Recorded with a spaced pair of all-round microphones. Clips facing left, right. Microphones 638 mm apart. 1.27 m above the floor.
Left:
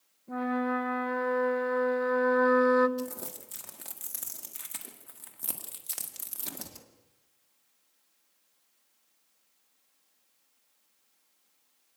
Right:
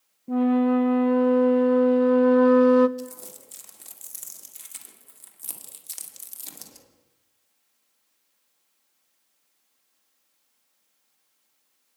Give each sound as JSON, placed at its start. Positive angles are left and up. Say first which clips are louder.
{"t": 0.3, "sound": "a flute", "louder": "right 11 dB", "side_deg": -60, "distance_m": 0.9}
{"t": 3.0, "sound": "crumpling", "louder": "left 1 dB", "side_deg": 80, "distance_m": 2.0}